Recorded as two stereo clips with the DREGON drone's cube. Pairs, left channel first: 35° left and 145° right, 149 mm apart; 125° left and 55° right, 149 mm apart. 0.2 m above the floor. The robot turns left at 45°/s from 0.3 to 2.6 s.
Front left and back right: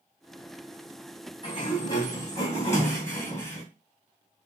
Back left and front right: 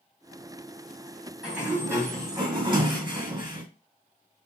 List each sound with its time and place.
1.4 s a sliding door: 30° left, 2.0 m; by 3.6 s 25° right, 2.0 m